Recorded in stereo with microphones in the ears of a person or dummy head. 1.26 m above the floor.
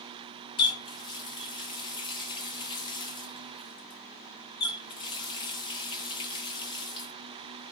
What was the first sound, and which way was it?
A running tap, 30° left (ahead or behind).